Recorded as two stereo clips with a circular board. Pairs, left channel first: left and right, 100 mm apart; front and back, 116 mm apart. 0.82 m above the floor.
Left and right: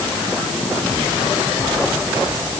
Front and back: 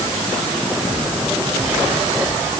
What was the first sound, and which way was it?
Only background noise.